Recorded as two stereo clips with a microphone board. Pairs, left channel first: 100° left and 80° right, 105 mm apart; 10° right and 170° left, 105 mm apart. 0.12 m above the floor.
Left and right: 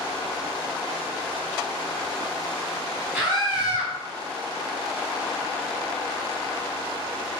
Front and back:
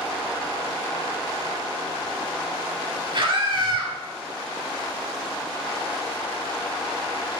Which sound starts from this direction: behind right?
A scream, at 3.1 s.